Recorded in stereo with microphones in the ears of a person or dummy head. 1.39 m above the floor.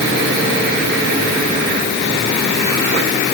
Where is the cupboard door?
I don't hear a cupboard door.